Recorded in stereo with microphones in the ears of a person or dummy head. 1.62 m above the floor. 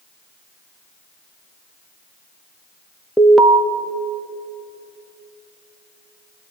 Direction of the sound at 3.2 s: Centre (ahead or behind).